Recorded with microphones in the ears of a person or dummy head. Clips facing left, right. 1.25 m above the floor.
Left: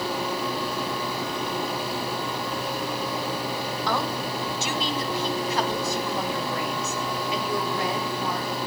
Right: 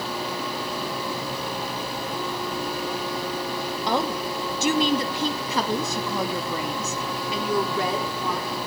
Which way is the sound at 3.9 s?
25° right (ahead or behind).